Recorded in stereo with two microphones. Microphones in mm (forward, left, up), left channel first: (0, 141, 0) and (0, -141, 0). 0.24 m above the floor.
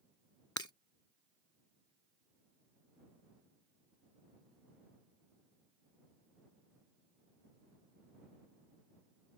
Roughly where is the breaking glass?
Left.